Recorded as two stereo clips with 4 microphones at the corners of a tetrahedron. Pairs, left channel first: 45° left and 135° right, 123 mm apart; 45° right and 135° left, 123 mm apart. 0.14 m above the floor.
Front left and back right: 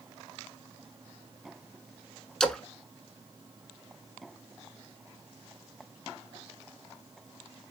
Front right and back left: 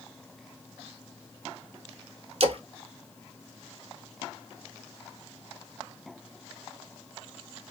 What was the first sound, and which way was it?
A splash, 130° left.